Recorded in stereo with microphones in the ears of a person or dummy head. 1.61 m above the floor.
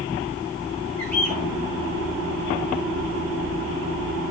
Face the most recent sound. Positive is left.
turn(degrees=5)  # may be behind; listen again after turning